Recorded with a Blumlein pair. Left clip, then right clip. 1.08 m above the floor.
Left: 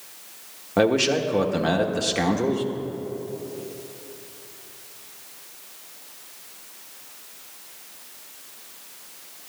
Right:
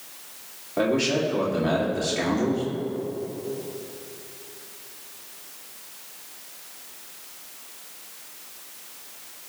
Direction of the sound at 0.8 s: 40° left.